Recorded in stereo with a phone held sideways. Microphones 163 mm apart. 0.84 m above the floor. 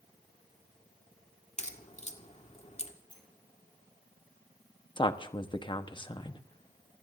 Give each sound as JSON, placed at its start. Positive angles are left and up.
{"t": 1.6, "sound": "a crack", "side_deg": 45, "distance_m": 1.8}
{"t": 3.1, "sound": "a sliding door", "side_deg": 30, "distance_m": 8.5}
{"t": 5.0, "sound": "a woman speaking", "side_deg": 30, "distance_m": 1.1}